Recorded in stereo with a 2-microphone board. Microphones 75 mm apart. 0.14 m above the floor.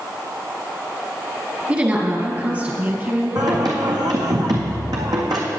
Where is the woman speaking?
20° right (ahead or behind), 2 m; by 4.0 s 35° right (ahead or behind), 4 m.